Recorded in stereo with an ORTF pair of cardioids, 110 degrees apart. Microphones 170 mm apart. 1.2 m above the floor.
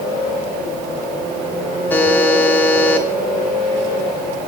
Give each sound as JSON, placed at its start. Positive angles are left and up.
{"t": 1.9, "sound": "a buzzer", "azimuth_deg": 10, "distance_m": 2.5}